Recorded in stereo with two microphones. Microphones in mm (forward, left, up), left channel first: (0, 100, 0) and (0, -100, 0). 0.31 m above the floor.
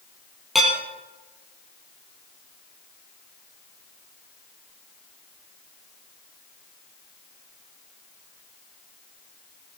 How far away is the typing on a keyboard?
No typing on a keyboard in this recording.